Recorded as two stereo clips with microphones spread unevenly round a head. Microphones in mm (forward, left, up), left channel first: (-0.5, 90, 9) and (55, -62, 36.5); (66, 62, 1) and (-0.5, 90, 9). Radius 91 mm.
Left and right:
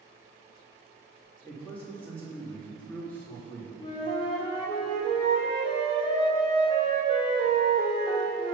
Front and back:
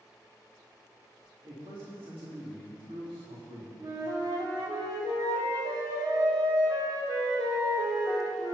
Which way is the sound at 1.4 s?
165° right.